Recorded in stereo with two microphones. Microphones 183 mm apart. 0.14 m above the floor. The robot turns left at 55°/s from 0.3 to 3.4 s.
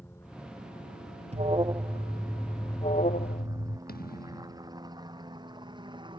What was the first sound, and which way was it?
A helicopter, 15° left (ahead or behind).